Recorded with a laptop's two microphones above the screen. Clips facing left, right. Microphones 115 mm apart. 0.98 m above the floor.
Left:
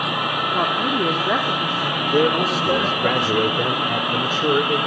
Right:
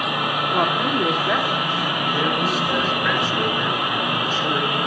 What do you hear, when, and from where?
0.5 s a woman speaking: 10° right (ahead or behind), 2 m; by 3.1 s 50° left (ahead or behind), 4.5 m
2.1 s a man speaking: 75° left (ahead or behind), 3.5 m